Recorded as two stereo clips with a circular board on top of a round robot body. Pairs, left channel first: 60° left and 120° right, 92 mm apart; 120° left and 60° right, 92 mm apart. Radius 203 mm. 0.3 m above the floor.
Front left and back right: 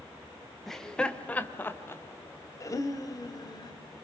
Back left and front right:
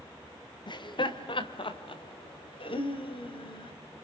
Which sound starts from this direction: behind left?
Laughter, at 0.7 s.